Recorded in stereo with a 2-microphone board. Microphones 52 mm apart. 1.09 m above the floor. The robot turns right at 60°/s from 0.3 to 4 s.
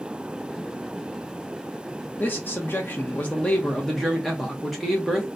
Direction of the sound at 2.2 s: 70° left.